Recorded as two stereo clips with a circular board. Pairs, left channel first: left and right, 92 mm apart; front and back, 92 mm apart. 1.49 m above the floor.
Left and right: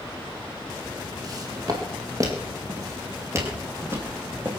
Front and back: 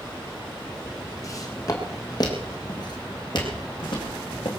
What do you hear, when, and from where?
1.2 s footsteps: 50° right, 3.5 m; by 4.5 s 25° right, 4.5 m